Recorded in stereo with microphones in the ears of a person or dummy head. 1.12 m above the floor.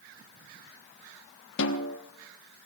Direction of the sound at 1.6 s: 65° left (ahead or behind).